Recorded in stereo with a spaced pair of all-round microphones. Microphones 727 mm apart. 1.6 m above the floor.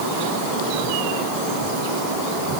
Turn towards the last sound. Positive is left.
No sound to turn to.